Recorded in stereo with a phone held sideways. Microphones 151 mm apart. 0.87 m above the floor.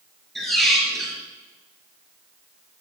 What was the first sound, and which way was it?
A squeak, centre (ahead or behind).